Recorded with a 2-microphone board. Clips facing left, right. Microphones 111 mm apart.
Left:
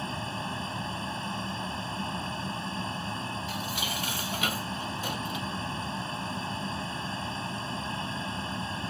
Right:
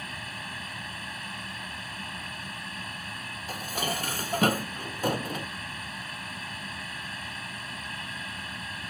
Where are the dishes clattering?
40° right (ahead or behind).